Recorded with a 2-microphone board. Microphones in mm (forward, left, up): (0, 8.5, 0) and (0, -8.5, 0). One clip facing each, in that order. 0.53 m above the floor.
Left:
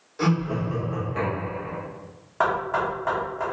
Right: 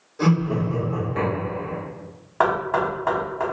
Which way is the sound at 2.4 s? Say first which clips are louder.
Right 3 dB; 10° right (ahead or behind).